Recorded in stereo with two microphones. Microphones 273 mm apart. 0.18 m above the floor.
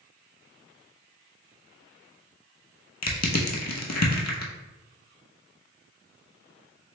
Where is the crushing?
75° left (ahead or behind), 0.8 m.